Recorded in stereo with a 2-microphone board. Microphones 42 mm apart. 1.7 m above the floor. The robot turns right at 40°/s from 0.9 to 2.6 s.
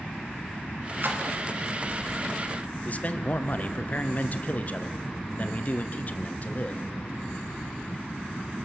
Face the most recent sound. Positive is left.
turn(degrees=40)  # may be behind; listen again after turning